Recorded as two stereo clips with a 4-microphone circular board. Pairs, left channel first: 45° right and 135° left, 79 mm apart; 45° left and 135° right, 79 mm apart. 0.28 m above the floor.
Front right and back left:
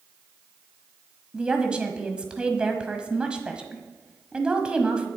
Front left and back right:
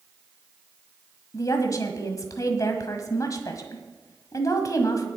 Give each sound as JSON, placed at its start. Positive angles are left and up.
{"t": 1.3, "sound": "a woman speaking", "azimuth_deg": 60, "distance_m": 1.4}